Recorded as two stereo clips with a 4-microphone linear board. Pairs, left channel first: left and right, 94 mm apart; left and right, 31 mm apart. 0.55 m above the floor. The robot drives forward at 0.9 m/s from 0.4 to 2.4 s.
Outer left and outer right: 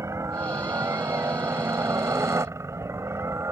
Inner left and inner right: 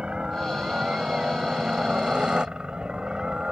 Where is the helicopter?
30° right (ahead or behind).